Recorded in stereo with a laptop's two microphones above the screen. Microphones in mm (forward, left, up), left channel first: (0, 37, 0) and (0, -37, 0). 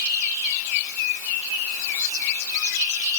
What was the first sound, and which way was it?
Only background noise.